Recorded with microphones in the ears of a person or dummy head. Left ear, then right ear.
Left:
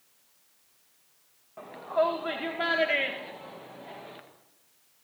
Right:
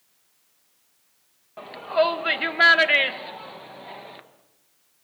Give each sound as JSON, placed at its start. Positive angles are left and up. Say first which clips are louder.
{"t": 1.6, "sound": "a shout", "louder": "right 5 dB", "side_deg": -80, "distance_m": 2.5}